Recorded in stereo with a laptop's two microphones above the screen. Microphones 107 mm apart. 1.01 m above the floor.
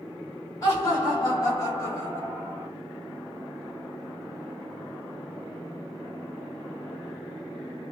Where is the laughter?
30° left (ahead or behind), 1.4 m; by 2.7 s 10° left (ahead or behind), 0.9 m.